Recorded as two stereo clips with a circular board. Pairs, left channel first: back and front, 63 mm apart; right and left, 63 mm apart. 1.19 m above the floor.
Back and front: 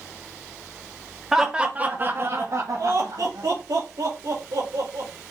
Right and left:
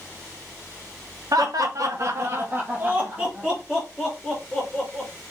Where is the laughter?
85° left, 1.2 m; by 5.1 s straight ahead, 3 m.